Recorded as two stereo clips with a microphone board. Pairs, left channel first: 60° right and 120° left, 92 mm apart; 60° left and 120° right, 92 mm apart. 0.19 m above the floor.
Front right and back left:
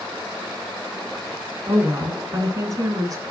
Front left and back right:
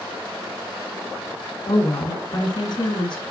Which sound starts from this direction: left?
A woman speaking, at 1.7 s.